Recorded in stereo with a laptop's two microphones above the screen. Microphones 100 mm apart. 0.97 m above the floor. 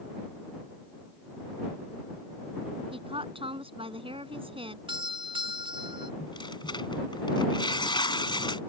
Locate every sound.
2.9 s a woman speaking: 65° right (ahead or behind)
4.9 s a doorbell: 60° right (ahead or behind)
6.2 s tearing paper: 55° left (ahead or behind)